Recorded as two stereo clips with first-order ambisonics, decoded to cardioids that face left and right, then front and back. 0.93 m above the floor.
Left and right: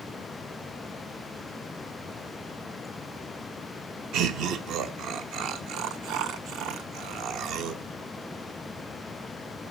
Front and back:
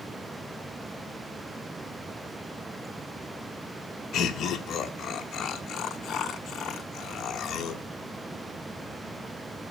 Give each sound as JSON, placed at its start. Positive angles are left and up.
{"t": 4.1, "sound": "laughter", "azimuth_deg": -50, "distance_m": 1.1}